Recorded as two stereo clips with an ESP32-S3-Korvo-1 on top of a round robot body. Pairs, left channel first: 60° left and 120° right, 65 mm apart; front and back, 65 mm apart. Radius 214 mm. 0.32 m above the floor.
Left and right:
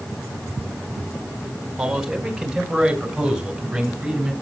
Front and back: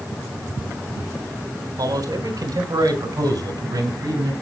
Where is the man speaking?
155° left, 3.5 m; by 4.3 s 160° left, 6 m.